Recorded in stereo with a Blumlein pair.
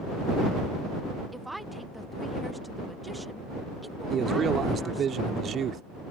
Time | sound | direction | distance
1.3 | a woman speaking | 5° right | ?
4.1 | a man speaking | 25° right | ?